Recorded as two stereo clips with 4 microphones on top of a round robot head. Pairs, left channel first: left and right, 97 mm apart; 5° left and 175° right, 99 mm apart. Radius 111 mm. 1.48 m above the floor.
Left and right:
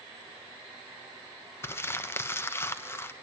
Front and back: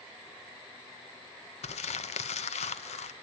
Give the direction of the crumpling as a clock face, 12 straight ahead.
11 o'clock.